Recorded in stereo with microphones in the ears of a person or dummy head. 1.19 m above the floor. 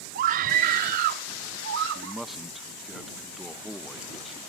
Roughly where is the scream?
Right.